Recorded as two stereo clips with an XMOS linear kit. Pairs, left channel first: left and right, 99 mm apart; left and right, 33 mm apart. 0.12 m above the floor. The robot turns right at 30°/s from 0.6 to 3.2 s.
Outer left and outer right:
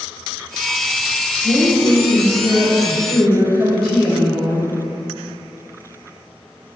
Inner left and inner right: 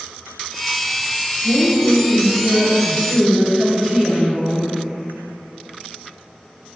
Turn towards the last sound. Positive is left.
turn(degrees=5)